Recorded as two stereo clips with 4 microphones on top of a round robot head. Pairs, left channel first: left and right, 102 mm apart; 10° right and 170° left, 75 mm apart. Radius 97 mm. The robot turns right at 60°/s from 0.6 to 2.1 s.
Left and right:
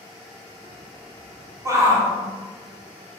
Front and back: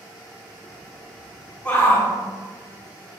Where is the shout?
70° right, 1.2 m; by 2.1 s 40° right, 1.2 m.